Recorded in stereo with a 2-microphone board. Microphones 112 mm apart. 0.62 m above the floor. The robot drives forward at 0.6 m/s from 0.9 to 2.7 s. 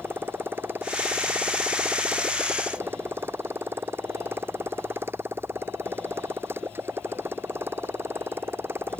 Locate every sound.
0.0 s a motorcycle: 20° right (ahead or behind)